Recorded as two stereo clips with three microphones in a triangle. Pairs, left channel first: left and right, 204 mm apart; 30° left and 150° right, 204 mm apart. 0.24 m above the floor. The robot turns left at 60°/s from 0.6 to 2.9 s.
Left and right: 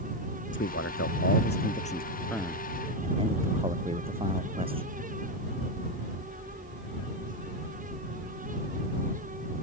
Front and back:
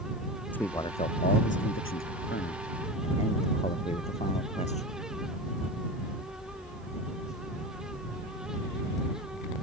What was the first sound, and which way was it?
A man speaking, 110° left.